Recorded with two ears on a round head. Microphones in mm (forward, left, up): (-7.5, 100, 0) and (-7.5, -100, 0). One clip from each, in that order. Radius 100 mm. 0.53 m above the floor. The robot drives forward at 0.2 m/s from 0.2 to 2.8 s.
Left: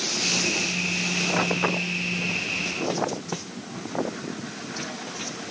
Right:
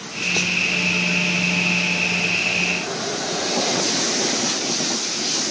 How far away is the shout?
I don't hear a shout.